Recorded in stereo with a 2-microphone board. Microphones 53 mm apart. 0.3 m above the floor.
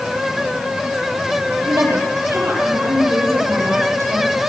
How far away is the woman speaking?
About 8.5 m.